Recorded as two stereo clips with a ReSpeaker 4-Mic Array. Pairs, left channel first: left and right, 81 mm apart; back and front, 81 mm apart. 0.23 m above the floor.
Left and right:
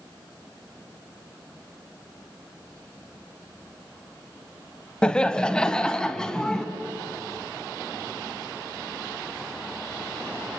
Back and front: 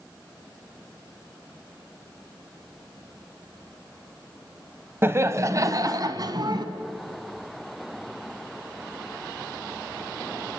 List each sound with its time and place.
5.0 s laughter: 25° left, 1.1 m; by 6.7 s 10° left, 1.9 m